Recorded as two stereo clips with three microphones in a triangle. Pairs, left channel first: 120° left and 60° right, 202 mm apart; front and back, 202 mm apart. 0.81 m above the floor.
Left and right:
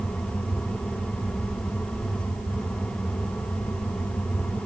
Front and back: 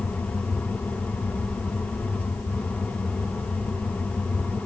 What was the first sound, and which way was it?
Only background noise.